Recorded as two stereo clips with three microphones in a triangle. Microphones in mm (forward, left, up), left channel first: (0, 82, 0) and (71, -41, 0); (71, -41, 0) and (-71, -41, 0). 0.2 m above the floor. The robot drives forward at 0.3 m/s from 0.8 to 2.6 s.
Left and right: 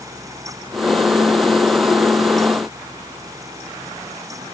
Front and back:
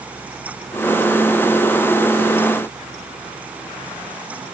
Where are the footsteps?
I don't hear footsteps.